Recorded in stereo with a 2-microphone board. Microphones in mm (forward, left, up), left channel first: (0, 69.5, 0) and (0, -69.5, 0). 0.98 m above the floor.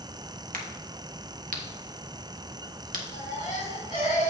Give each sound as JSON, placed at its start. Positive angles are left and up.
{"t": 0.5, "sound": "a crack", "side_deg": -85, "distance_m": 1.5}
{"t": 3.1, "sound": "a baby crying", "side_deg": 70, "distance_m": 4.0}